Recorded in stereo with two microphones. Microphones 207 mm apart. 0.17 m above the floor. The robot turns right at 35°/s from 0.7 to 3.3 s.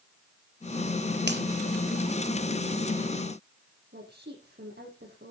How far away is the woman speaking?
About 7.5 m.